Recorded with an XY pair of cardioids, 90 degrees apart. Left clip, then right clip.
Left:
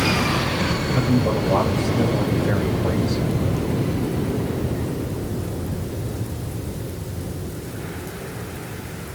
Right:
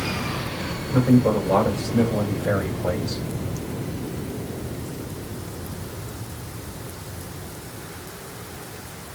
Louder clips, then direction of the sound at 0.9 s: Right 5 dB; 60° right.